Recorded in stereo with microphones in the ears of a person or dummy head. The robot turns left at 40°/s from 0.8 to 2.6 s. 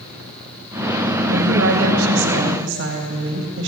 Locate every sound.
1.3 s a woman speaking: 60° right, 3 m; by 3.7 s 115° right, 3 m